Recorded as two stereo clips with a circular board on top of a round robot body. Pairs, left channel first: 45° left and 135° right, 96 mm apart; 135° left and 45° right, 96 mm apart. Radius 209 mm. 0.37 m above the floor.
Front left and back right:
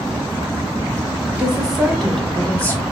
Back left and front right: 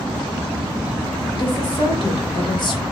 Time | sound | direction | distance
1.4 | a woman speaking | 150° left | 1.4 m